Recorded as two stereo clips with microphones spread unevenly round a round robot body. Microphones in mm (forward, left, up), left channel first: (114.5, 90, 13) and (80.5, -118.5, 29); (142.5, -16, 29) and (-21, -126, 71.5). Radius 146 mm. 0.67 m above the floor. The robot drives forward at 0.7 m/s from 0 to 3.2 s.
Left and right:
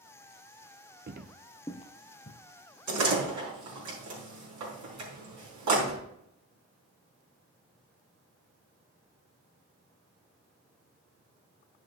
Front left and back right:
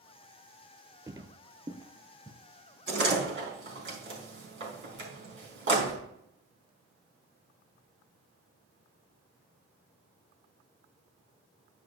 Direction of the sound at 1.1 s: 90° right.